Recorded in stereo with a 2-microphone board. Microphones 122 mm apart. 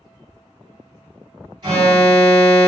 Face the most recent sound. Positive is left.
turn(degrees=-40)  # may be behind; listen again after turning